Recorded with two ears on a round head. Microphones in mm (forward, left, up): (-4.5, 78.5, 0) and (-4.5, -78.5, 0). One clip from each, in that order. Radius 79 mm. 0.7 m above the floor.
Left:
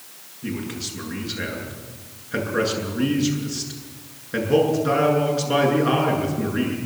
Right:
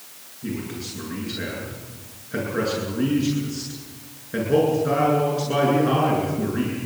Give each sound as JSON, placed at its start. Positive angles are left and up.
{"t": 0.4, "sound": "a man speaking", "side_deg": 30, "distance_m": 8.0}